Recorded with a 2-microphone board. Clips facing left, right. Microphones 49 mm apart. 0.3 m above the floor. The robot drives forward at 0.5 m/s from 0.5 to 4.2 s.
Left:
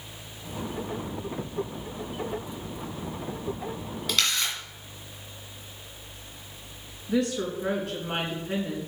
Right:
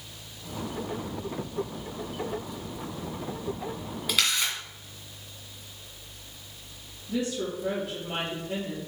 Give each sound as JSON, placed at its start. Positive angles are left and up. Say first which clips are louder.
{"t": 4.1, "sound": "a camera shutter", "louder": "even", "side_deg": -10, "distance_m": 1.9}
{"t": 7.1, "sound": "a woman speaking", "louder": "left 3 dB", "side_deg": 65, "distance_m": 3.0}